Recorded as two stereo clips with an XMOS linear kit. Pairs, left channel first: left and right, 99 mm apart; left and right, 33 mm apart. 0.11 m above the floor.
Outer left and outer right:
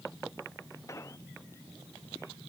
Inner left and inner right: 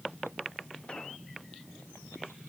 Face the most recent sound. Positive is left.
turn(degrees=30)  # may be behind; listen again after turning